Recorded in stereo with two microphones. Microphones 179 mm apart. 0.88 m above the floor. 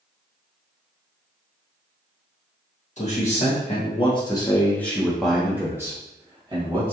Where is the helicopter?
I don't hear a helicopter.